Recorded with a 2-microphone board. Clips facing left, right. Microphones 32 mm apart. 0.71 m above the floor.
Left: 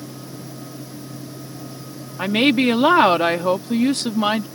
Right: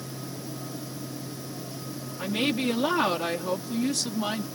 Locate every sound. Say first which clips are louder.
2.2 s a woman speaking: left 10 dB; 50° left (ahead or behind)